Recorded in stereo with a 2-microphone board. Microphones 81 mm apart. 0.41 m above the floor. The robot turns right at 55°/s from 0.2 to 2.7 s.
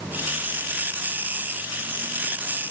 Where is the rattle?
I don't hear a rattle.